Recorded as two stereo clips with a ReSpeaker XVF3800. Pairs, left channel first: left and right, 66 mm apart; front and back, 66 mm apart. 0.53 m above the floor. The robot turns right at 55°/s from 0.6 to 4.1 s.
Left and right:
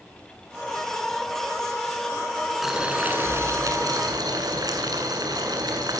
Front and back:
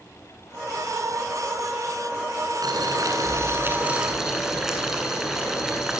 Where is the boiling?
Straight behind, 7.5 m; by 6.0 s 95° right, 7.5 m.